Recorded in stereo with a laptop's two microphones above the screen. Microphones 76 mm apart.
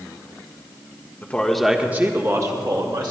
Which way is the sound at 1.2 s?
20° left (ahead or behind).